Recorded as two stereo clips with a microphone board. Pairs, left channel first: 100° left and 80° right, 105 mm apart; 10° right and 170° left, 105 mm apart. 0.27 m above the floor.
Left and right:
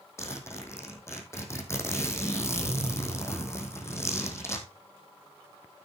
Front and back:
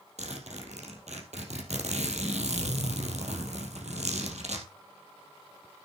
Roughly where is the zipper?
Behind.